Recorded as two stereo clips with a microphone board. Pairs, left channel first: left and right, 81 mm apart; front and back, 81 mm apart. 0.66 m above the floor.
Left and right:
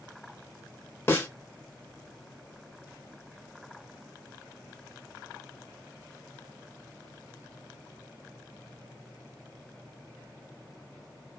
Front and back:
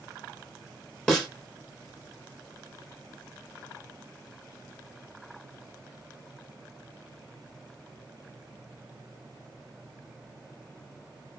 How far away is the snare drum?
About 0.8 m.